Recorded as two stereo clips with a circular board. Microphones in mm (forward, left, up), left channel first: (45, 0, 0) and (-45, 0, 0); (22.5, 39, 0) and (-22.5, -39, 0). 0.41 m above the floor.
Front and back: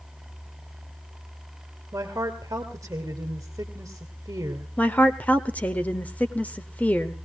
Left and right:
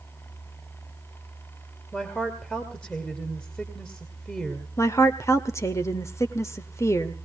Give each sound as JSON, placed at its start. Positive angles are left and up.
{"t": 1.9, "sound": "a woman speaking", "azimuth_deg": 135, "distance_m": 2.0}
{"t": 4.8, "sound": "a woman speaking", "azimuth_deg": 60, "distance_m": 1.3}